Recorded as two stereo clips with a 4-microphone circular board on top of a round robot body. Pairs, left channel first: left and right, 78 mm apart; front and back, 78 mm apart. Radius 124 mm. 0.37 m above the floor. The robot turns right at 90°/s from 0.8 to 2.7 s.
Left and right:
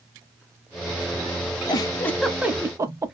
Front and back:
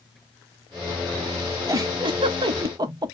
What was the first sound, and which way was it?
A giggle, 125° left.